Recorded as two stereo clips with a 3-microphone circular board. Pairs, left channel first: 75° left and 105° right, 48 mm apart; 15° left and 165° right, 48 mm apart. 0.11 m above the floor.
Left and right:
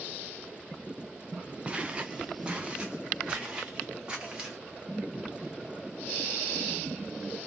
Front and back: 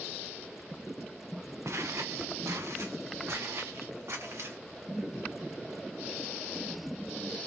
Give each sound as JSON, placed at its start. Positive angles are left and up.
{"t": 1.6, "sound": "footsteps", "azimuth_deg": -175, "distance_m": 0.7}